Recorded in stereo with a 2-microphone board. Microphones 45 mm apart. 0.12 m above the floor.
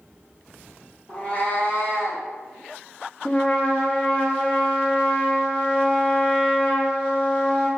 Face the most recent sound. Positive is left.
turn(degrees=30)  # may be behind; listen again after turning